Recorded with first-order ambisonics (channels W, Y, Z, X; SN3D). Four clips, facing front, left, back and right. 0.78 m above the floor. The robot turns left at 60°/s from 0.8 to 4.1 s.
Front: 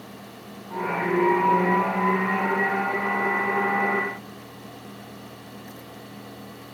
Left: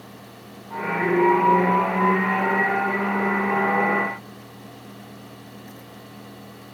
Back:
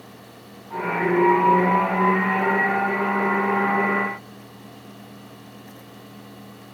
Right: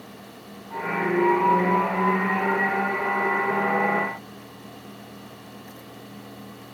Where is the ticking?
No ticking in this recording.